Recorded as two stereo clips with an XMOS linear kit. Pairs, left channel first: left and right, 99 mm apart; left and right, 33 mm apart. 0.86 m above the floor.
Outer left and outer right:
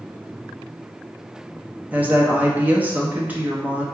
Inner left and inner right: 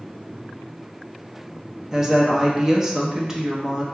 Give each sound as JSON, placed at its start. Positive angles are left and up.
{"t": 1.9, "sound": "a woman speaking", "side_deg": -15, "distance_m": 0.8}